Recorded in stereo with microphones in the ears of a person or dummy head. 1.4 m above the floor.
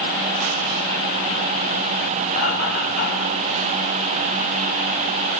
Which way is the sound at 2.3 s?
30° left (ahead or behind).